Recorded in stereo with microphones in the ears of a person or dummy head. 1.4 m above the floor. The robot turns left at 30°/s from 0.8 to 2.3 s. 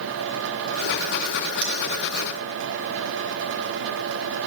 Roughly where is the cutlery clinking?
Right.